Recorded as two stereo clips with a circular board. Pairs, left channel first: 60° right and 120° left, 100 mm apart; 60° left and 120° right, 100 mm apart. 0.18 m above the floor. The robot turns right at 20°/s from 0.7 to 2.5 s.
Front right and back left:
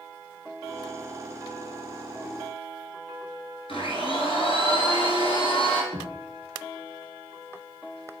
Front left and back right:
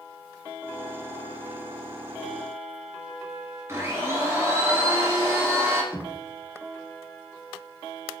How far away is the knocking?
About 1.2 m.